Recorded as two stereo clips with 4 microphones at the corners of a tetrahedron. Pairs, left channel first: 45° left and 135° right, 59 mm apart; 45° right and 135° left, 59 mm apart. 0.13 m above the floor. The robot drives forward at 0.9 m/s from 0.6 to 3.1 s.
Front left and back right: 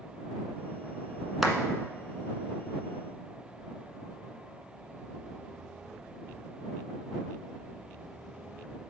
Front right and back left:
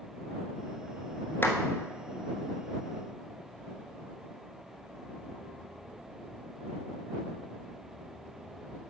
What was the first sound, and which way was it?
A clap, 50° right.